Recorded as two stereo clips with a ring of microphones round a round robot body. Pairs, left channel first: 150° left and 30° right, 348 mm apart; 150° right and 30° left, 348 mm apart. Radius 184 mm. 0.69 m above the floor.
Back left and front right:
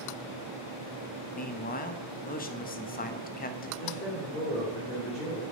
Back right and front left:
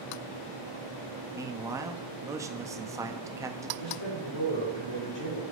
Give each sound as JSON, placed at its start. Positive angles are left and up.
{"t": 1.4, "sound": "a man speaking", "azimuth_deg": 105, "distance_m": 0.7}
{"t": 3.8, "sound": "a man speaking", "azimuth_deg": -140, "distance_m": 3.0}